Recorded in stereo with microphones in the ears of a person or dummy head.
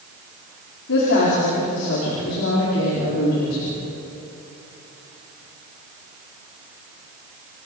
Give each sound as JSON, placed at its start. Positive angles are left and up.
{"t": 0.9, "sound": "a woman speaking", "side_deg": 70, "distance_m": 5.0}